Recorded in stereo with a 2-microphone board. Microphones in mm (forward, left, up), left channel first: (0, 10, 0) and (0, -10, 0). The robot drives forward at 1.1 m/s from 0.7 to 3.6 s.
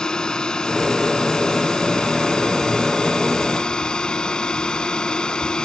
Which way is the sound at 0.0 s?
40° left (ahead or behind).